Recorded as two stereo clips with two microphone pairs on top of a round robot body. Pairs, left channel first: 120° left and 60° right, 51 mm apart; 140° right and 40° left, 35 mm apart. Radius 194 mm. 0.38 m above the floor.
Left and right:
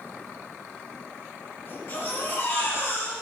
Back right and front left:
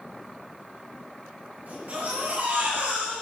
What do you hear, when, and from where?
1.7 s a baby crying: 85° left, 5 m